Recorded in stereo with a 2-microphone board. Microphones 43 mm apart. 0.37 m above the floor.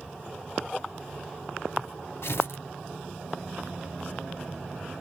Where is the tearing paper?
75° left (ahead or behind), 0.7 m.